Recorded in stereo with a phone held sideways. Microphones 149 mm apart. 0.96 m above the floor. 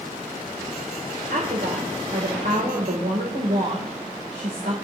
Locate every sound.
1.3 s a woman speaking: 75° right (ahead or behind), 3 m